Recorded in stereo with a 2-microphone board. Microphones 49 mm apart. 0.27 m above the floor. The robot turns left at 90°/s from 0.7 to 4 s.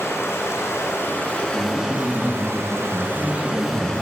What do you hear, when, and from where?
0.0 s running water: 90° left, 0.9 m; by 4.0 s 150° left, 0.9 m
1.5 s a man speaking: 105° right, 1.2 m; by 4.0 s 30° left, 1.2 m